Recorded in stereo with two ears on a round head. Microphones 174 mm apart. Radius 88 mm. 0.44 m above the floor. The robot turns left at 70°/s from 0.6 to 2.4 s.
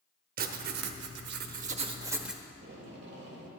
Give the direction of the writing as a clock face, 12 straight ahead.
2 o'clock.